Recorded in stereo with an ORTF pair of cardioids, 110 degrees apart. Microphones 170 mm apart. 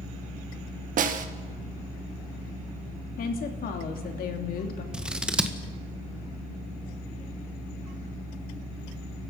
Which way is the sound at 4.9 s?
5° right.